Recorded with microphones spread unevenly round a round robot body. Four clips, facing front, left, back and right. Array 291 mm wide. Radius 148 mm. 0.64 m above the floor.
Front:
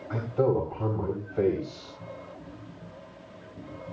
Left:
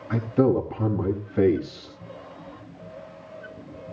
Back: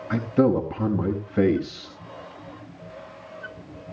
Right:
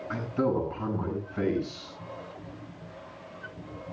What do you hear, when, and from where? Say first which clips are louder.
0.1 s a man speaking: left 7 dB, back 5 dB; 155° left, 4 m